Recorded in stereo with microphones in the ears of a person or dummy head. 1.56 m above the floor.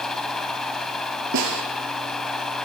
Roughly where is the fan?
Centre.